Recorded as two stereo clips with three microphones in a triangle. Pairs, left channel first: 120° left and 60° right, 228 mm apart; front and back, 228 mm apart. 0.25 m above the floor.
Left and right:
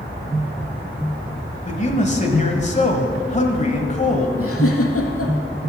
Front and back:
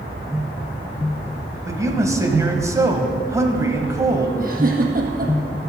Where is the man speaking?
115° left, 1.3 m.